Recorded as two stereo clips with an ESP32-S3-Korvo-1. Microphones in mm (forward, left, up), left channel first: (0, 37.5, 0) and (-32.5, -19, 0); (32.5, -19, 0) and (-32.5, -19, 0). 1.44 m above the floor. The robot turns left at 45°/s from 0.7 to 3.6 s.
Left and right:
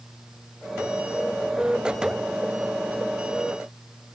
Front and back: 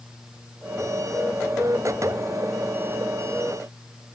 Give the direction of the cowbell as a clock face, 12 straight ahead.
I don't hear a cowbell.